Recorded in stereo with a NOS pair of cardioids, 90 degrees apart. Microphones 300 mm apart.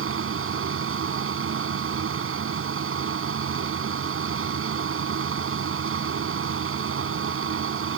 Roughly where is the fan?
Ahead right.